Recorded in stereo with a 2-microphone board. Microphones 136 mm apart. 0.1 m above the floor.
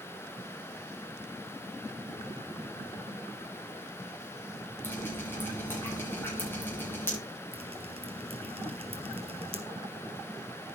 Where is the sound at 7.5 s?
50° right (ahead or behind), 2.5 m.